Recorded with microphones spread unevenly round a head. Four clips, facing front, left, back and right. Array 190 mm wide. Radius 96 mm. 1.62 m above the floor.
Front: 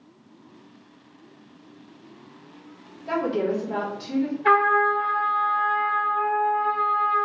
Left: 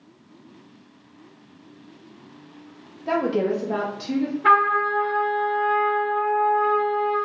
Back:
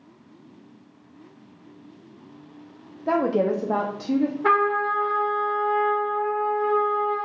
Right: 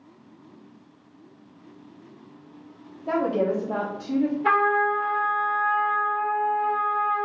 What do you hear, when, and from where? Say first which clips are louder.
3.1 s a woman speaking: left 1 dB, back 3 dB; 175° left, 0.9 m
4.4 s a trumpet: left 5 dB, front 4 dB; 170° left, 1.1 m